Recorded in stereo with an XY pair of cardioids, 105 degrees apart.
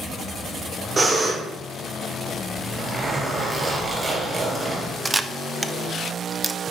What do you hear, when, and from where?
1.0 s breathing: 40° right, 3.5 m
2.5 s a zipper: 25° right, 4 m
5.0 s a camera shutter: 20° right, 0.5 m